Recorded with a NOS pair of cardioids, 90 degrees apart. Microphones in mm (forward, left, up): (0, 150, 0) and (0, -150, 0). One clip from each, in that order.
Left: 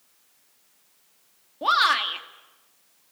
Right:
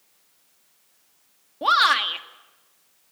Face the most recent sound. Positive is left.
turn(degrees=-15)